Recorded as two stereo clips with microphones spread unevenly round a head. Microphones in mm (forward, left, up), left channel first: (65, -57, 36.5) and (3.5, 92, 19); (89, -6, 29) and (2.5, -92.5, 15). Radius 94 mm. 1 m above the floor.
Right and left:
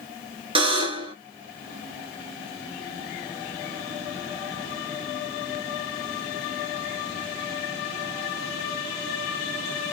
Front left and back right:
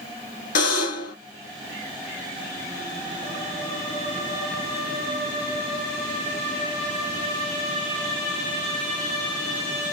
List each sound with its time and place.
0.6 s a buzzer: 55° left, 2.5 m